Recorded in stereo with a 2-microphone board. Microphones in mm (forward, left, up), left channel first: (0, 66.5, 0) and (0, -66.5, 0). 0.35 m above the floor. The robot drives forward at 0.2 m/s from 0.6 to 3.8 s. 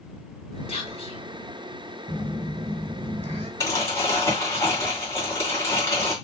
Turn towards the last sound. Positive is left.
turn(degrees=20)  # may be behind; listen again after turning